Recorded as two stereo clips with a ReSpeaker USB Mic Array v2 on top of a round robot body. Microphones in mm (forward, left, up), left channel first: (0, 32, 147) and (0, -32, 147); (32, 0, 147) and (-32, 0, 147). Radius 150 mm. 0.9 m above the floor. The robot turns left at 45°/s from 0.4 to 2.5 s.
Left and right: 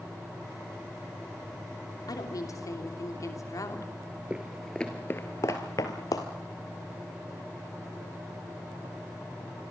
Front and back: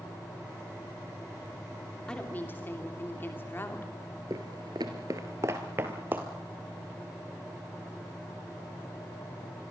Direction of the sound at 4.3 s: 160° right.